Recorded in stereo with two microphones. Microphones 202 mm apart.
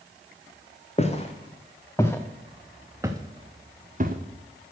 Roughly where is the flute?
I don't hear a flute.